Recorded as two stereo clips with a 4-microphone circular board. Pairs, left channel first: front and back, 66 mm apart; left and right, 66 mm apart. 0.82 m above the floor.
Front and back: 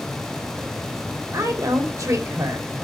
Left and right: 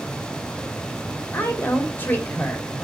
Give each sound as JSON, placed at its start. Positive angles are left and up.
{"t": 1.3, "sound": "a woman speaking", "azimuth_deg": 150, "distance_m": 3.0}